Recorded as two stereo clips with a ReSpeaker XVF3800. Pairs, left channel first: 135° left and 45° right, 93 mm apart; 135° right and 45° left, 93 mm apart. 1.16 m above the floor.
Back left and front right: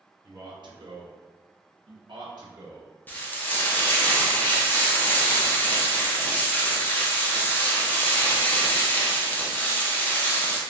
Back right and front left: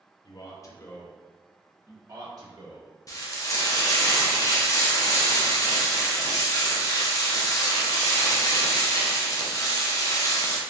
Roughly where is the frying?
Behind.